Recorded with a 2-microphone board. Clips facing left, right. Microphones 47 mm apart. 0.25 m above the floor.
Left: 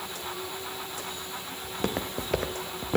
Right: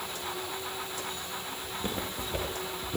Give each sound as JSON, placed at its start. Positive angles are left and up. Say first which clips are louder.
{"t": 1.6, "sound": "footsteps", "louder": "left 5 dB", "side_deg": 80, "distance_m": 2.5}